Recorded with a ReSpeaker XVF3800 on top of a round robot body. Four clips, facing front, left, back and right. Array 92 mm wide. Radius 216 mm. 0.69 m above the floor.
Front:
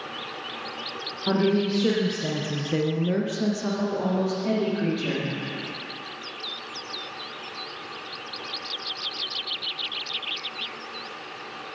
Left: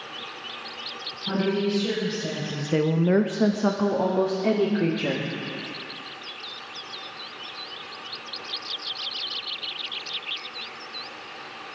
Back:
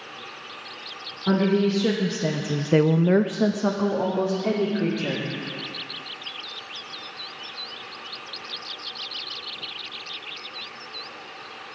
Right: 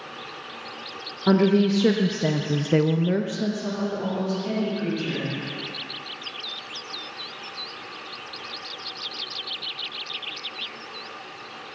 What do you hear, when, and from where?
1.3 s a woman speaking: 90° right, 2.5 m; by 5.2 s 110° left, 4 m